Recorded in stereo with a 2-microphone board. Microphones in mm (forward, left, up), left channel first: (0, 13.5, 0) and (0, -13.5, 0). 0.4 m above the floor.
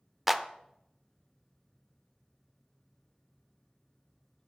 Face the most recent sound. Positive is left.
turn(degrees=-5)  # may be behind; listen again after turning